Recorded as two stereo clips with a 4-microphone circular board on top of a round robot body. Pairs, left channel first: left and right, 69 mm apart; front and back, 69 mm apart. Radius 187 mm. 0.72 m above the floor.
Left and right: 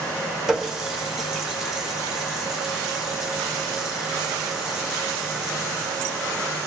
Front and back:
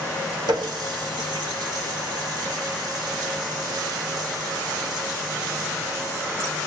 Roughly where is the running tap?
Behind.